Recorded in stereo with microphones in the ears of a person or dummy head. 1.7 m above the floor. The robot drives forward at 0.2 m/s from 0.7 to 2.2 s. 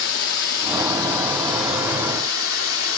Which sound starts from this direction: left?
Running water, at 0.0 s.